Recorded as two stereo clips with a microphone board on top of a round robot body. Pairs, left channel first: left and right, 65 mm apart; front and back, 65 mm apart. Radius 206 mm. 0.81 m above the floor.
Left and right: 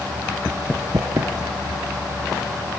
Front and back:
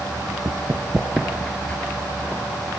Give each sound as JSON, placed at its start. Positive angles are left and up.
{"t": 0.5, "sound": "running footsteps", "azimuth_deg": 145, "distance_m": 0.8}